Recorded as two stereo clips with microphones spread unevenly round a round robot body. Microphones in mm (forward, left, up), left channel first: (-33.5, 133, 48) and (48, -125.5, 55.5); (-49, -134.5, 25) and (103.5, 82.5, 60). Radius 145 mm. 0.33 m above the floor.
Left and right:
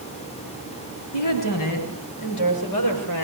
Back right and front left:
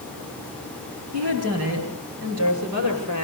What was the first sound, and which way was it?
A woman speaking, 100° left.